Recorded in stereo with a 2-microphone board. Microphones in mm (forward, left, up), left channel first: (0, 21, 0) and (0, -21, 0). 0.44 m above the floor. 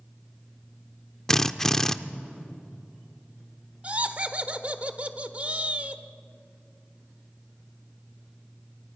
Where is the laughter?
35° right (ahead or behind), 1.2 m.